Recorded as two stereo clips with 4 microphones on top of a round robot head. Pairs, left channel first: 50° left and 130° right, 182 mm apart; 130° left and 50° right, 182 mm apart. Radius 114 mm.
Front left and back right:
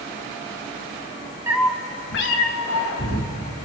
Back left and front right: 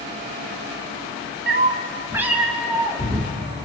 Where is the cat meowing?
60° right, 0.8 m; by 3.3 s 45° left, 2.5 m.